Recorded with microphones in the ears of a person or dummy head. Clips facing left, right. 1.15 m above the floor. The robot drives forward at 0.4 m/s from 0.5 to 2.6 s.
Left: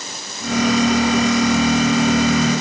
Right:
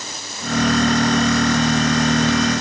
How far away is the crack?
No crack in this recording.